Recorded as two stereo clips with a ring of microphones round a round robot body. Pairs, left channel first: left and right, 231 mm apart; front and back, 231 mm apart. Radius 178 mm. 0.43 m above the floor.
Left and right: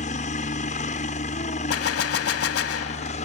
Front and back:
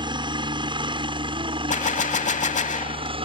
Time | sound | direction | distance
0.0 | a helicopter | 125° left | ?
1.7 | a gunshot | 60° left | ?